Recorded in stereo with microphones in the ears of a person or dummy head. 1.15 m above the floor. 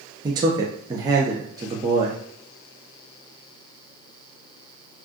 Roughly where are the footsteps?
No footsteps in this recording.